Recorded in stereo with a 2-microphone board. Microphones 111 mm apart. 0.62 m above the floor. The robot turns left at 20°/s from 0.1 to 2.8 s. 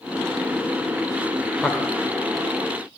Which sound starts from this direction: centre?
A man speaking, at 1.6 s.